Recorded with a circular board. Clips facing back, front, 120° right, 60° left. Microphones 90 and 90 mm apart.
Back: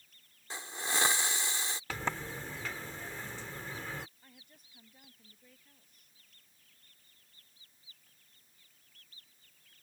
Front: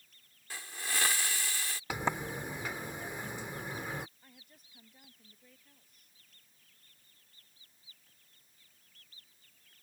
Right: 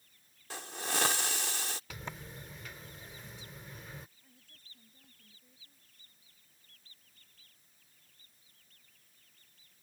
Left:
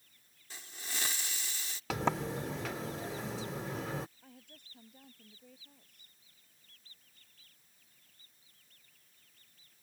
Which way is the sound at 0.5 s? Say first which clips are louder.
Back 2 dB, right 9 dB; 120° right.